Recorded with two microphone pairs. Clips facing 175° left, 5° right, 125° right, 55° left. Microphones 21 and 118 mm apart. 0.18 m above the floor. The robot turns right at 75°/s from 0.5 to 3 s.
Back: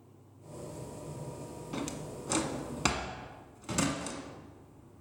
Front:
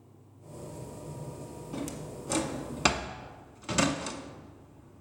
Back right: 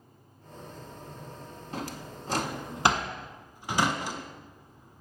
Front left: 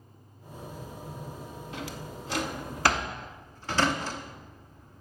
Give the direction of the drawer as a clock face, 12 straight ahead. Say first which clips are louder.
Even, back right 3 dB; 5 o'clock.